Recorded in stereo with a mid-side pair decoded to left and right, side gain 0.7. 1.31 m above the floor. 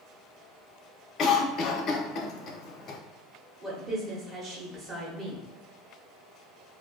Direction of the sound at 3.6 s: 25° right.